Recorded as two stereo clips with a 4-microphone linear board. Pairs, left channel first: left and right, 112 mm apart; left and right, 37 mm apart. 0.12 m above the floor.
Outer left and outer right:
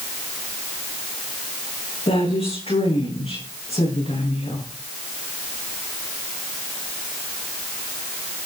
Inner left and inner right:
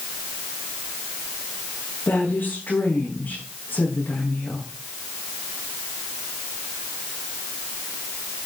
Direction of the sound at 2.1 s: 80° left.